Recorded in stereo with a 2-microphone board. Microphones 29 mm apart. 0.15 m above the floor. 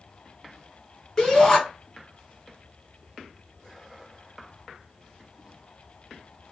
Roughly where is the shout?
Centre.